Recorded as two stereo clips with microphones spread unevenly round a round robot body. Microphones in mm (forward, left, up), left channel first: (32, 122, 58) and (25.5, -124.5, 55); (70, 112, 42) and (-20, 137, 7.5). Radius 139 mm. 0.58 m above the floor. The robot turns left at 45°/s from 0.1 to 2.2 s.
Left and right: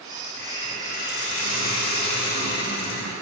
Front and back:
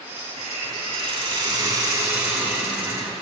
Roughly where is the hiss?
Behind.